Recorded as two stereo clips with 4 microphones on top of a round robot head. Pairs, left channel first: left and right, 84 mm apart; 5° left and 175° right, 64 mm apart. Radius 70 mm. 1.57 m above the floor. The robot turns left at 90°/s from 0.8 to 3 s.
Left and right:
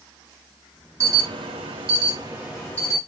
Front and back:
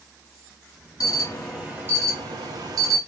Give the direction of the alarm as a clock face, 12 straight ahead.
1 o'clock.